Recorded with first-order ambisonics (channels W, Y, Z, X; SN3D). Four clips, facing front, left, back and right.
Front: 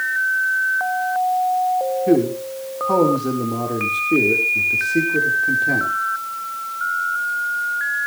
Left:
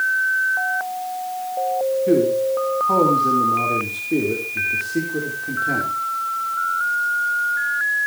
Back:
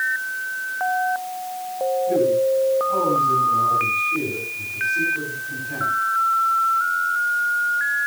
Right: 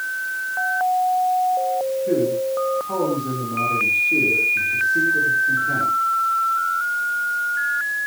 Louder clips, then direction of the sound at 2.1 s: Left 4 dB, back 2 dB; 25° left.